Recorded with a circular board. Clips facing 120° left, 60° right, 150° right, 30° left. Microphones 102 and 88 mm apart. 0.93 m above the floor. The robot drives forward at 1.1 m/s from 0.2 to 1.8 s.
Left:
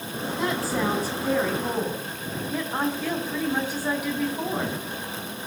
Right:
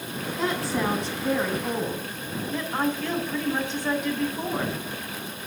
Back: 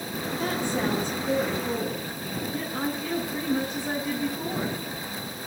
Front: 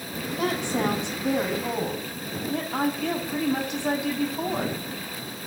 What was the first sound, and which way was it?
A woman speaking, 30° left.